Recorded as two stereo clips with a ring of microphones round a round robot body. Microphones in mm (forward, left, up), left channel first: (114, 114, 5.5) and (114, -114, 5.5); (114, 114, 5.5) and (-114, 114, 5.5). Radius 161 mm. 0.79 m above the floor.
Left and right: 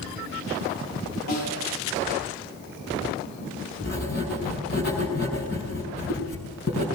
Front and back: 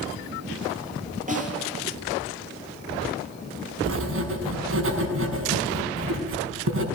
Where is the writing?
155° left, 6 m.